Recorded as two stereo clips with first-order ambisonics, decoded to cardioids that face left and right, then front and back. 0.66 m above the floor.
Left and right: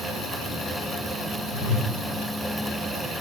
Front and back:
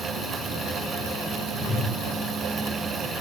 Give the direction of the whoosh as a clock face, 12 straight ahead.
10 o'clock.